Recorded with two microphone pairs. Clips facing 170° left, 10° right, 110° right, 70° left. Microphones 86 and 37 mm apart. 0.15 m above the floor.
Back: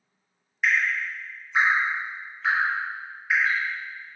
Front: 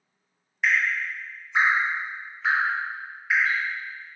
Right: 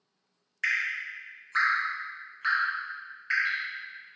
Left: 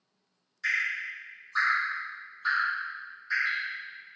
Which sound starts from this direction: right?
Dripping, at 0.6 s.